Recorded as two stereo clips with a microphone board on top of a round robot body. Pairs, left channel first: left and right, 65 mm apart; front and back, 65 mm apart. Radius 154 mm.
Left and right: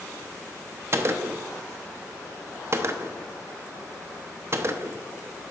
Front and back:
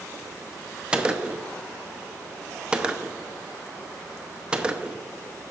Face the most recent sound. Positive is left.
turn(degrees=-110)